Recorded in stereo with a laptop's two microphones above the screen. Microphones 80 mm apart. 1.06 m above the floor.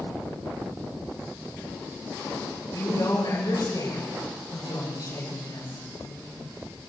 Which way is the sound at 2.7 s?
55° left (ahead or behind).